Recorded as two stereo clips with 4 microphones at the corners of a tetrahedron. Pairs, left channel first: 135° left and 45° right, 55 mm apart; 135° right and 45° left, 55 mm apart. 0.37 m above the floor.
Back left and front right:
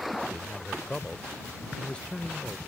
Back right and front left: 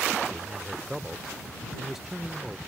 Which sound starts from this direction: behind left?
A man speaking, at 0.3 s.